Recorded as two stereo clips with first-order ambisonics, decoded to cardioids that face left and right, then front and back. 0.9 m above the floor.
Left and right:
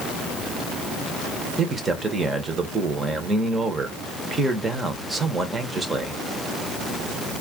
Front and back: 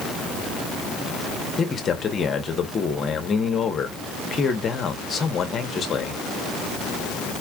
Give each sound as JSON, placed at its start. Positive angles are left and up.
{"t": 1.6, "sound": "a man speaking", "azimuth_deg": -30, "distance_m": 0.9}